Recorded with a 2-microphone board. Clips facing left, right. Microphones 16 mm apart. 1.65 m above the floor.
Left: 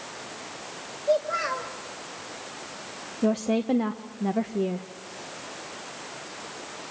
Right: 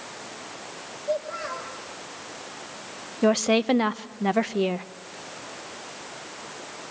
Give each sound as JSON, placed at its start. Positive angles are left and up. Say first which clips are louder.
{"t": 1.1, "sound": "a child speaking", "louder": "left 5 dB", "side_deg": 50, "distance_m": 1.6}
{"t": 3.2, "sound": "a woman speaking", "louder": "right 4 dB", "side_deg": -65, "distance_m": 0.7}